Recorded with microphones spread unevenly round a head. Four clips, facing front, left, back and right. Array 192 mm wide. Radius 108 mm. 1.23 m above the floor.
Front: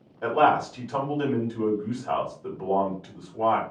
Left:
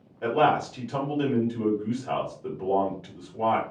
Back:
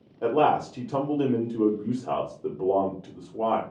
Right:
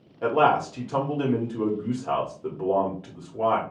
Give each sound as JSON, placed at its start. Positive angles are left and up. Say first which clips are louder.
{"t": 0.2, "sound": "a man speaking", "louder": "right 2 dB, front 1 dB", "azimuth_deg": -160, "distance_m": 1.1}